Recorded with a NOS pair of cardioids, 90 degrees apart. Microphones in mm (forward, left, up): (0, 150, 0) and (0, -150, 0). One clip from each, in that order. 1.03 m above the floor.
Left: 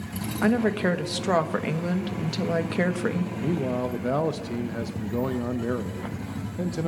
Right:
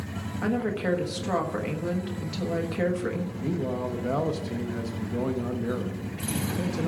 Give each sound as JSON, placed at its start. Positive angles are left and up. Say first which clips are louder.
{"t": 0.4, "sound": "a woman speaking", "louder": "left 4 dB", "azimuth_deg": 35, "distance_m": 1.2}
{"t": 3.4, "sound": "a man speaking", "louder": "left 3 dB", "azimuth_deg": 15, "distance_m": 0.6}